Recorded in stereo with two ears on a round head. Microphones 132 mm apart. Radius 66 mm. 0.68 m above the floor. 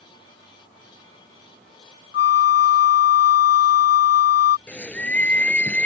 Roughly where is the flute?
Left.